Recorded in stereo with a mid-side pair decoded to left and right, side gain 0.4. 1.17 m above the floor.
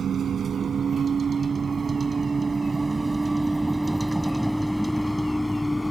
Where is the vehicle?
60° right; by 5.9 s 5° left.